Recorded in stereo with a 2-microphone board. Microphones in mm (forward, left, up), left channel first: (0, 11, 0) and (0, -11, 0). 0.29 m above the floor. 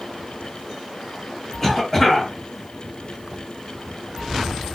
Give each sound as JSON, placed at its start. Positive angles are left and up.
{"t": 1.6, "sound": "a cough", "side_deg": 10, "distance_m": 2.0}